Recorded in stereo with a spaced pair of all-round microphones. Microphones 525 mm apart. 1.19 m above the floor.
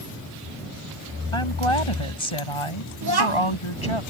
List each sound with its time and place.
1.3 s a woman speaking: 70° left (ahead or behind); by 4.0 s 65° left (ahead or behind)
3.0 s a child speaking: 45° right (ahead or behind)